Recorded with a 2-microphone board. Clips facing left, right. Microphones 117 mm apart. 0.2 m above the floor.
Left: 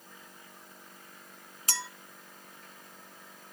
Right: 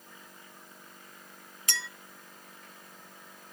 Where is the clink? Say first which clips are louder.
Left 1 dB; 35° left (ahead or behind), 0.9 m.